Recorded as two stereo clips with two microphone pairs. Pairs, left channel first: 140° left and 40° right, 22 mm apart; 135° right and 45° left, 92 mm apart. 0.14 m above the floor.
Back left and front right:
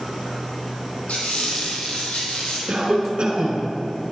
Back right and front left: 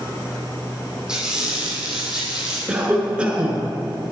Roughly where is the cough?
Ahead right.